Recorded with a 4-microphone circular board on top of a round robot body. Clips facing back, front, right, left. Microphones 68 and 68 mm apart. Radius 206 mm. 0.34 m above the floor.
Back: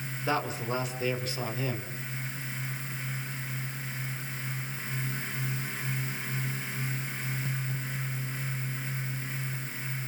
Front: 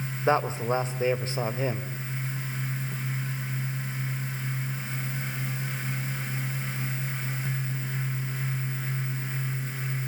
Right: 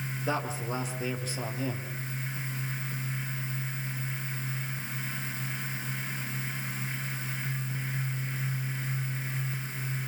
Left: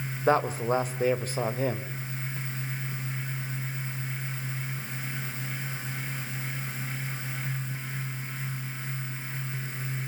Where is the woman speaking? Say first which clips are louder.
Front 6 dB, left 9 dB; 55° left, 2.5 m.